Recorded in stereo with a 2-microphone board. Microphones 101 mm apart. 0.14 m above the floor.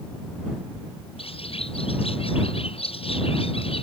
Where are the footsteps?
I don't hear footsteps.